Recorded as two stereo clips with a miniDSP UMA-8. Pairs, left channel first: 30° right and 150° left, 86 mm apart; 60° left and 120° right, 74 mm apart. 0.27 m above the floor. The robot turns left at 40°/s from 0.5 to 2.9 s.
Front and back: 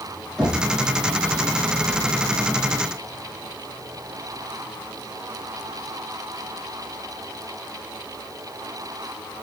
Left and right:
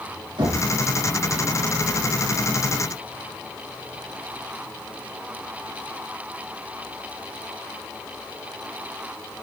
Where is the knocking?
120° right, 7 m; by 0.7 s 125° right, 7 m.